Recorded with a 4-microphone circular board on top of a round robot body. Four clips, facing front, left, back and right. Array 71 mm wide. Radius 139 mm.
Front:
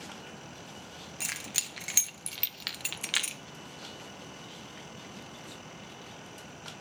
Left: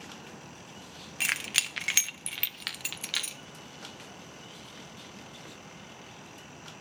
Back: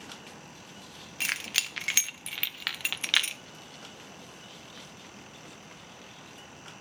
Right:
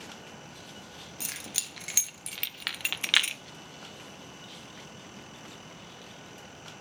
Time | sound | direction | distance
1.2 | keys jangling | 115° left | 1.0 m